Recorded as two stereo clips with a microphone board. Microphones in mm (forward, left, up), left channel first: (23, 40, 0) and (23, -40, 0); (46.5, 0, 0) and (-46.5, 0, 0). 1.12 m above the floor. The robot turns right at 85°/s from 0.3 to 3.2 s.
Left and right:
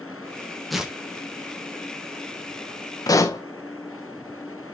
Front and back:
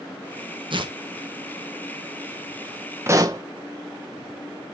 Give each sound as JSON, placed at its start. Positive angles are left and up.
{"t": 0.7, "sound": "tearing paper", "azimuth_deg": 180, "distance_m": 1.2}
{"t": 3.1, "sound": "a pop", "azimuth_deg": 120, "distance_m": 1.1}